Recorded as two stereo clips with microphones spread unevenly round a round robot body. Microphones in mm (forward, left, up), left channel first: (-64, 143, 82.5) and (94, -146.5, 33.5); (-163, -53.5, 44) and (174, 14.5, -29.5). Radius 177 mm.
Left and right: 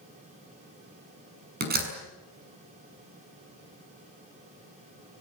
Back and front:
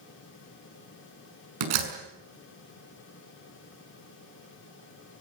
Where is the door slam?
Straight ahead, 5.5 m.